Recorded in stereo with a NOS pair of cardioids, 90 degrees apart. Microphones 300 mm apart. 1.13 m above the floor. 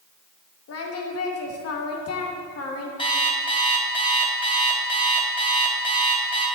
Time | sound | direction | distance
0.7 | singing | 50° left | 1.4 m
3.0 | an alarm clock | 15° left | 3 m